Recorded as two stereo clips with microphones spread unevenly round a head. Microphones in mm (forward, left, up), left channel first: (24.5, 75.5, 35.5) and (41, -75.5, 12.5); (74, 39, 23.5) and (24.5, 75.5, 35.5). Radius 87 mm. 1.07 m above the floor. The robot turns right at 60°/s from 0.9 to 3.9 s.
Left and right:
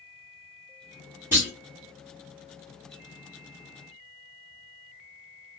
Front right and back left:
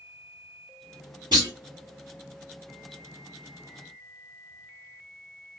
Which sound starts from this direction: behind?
A clunk, at 1.3 s.